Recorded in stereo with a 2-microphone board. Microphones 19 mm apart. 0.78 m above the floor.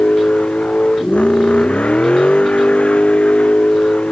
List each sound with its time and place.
0.0 s a vehicle: 85° left